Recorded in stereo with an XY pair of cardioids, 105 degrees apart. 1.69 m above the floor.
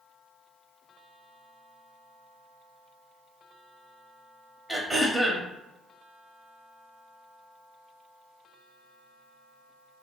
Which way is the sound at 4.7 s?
5° right.